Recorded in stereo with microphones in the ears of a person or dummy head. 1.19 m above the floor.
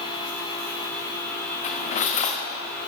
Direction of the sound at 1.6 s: 30° left (ahead or behind).